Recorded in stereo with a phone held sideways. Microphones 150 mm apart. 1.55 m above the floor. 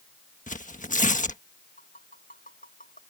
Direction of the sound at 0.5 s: 60° left (ahead or behind).